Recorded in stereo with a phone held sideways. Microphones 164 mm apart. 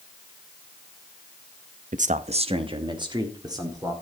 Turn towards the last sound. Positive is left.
turn(degrees=-20)  # may be behind; listen again after turning